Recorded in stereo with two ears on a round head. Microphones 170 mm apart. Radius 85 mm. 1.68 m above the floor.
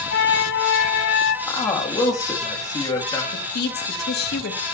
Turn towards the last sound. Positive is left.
turn(degrees=60)  # may be behind; listen again after turning